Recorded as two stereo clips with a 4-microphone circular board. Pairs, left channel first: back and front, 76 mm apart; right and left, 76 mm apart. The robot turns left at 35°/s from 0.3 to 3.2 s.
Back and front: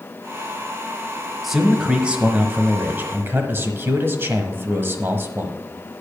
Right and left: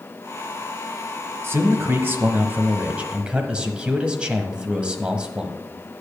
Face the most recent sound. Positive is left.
turn(degrees=25)